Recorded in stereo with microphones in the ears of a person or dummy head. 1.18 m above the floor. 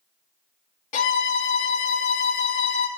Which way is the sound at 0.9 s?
40° left (ahead or behind).